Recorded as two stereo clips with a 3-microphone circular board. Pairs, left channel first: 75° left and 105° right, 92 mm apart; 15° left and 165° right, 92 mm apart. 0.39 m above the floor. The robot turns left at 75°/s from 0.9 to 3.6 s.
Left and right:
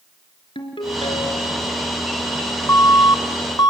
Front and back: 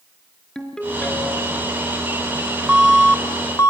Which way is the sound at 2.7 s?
120° left.